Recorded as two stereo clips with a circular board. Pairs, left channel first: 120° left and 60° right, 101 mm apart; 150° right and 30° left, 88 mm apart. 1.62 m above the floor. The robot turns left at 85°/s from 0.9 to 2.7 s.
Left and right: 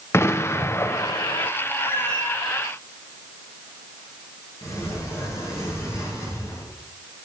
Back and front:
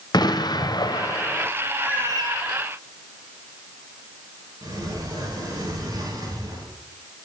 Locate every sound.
0.1 s an explosion: straight behind, 0.7 m; by 1.5 s 130° left, 0.7 m
1.8 s a cat meowing: 155° left, 6 m; by 2.4 s 105° left, 6 m
4.6 s a sliding door: 65° left, 7.5 m